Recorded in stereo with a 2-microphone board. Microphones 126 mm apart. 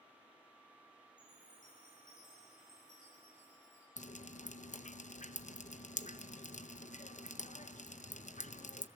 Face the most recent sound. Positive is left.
turn(degrees=75)  # may be behind; listen again after turning